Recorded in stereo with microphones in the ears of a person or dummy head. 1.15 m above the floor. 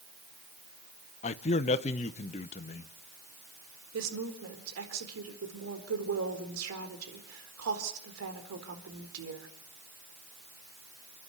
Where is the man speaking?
35° left (ahead or behind), 0.9 m.